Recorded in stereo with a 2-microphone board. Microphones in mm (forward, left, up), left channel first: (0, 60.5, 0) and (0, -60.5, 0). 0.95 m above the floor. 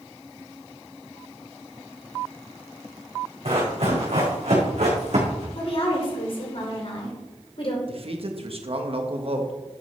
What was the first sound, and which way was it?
Running footsteps, 60° right (ahead or behind).